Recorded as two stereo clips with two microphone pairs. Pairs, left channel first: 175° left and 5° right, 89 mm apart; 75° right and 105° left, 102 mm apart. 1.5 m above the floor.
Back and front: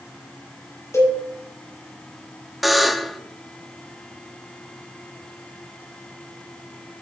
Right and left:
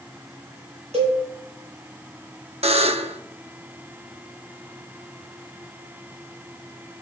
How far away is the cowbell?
About 6 m.